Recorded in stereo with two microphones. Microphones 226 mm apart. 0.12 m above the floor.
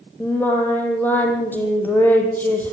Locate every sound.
0.2 s singing: 10° left (ahead or behind), 4 m